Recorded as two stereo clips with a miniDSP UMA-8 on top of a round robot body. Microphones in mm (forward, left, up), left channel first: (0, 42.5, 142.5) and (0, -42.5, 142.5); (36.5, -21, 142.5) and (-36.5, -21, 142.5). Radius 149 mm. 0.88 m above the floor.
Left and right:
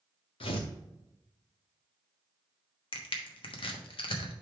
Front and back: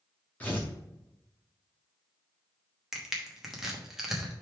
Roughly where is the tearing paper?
Left.